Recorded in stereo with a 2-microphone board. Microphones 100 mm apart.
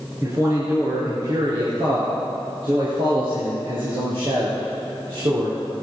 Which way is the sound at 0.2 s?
35° right (ahead or behind).